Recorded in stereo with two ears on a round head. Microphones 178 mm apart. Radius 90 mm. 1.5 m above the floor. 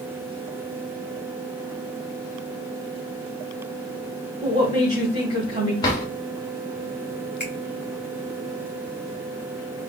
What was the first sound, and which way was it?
A woman speaking, 30° right (ahead or behind).